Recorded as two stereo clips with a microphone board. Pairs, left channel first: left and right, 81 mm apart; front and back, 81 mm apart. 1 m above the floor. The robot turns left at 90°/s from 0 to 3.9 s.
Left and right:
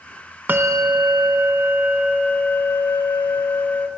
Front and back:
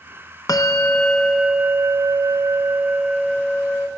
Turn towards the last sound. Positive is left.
turn(degrees=25)